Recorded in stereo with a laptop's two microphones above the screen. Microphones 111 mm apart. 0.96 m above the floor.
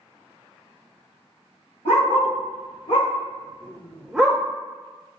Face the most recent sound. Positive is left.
turn(degrees=-15)  # may be behind; listen again after turning